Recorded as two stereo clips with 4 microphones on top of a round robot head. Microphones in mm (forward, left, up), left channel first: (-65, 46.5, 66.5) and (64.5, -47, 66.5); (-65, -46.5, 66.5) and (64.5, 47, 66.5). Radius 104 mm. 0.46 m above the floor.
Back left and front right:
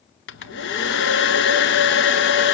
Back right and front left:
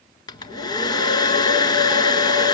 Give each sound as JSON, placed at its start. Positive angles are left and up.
{"t": 0.3, "sound": "a hair dryer", "azimuth_deg": 150, "distance_m": 1.2}